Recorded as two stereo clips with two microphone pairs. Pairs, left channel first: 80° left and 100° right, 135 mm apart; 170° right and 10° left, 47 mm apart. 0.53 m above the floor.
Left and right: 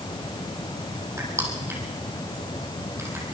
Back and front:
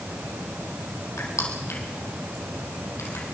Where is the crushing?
170° right, 4.5 m.